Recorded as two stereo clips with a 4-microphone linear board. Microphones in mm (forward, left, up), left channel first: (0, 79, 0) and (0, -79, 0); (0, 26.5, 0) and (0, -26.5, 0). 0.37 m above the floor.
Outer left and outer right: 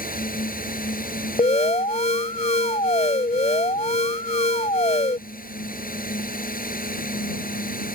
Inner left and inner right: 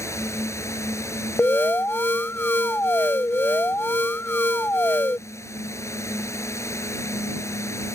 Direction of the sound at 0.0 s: 65° left (ahead or behind).